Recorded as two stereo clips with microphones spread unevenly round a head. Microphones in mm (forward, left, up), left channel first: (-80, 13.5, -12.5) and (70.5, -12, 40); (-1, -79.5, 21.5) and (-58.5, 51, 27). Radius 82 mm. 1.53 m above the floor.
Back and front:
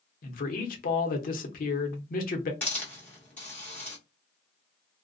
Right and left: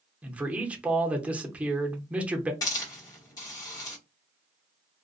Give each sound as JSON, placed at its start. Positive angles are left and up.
{"t": 0.2, "sound": "a man speaking", "azimuth_deg": -165, "distance_m": 0.7}
{"t": 2.6, "sound": "a hiss", "azimuth_deg": -70, "distance_m": 1.1}